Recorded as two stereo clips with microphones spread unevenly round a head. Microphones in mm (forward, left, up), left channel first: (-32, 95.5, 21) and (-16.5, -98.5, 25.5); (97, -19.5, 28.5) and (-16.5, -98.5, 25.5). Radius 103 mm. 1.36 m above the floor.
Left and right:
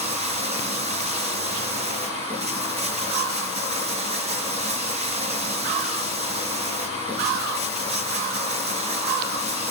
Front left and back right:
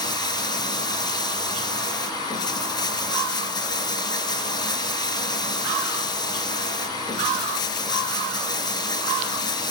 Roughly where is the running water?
Ahead right.